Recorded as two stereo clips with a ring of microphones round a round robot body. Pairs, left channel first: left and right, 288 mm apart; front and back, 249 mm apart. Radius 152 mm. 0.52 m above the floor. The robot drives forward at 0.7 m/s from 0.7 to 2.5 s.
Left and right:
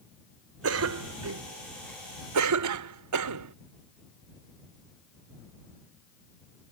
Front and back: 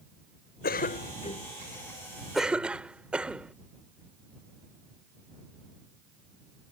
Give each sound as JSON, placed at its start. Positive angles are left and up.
{"t": 0.6, "sound": "a cough", "azimuth_deg": -55}